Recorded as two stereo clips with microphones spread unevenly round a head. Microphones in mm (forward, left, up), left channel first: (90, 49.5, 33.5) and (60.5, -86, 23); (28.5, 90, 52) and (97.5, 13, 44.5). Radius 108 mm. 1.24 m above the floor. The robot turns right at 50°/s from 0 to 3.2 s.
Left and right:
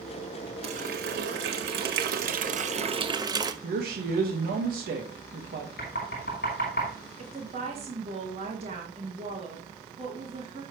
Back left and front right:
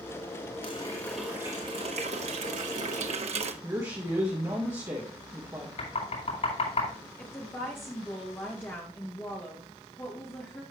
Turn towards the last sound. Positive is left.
turn(degrees=-155)